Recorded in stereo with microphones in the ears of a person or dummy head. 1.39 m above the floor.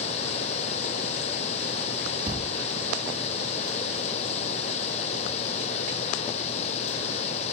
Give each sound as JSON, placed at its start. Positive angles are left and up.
{"t": 0.0, "sound": "running water", "side_deg": 35}
{"t": 2.3, "sound": "a thud", "side_deg": -25}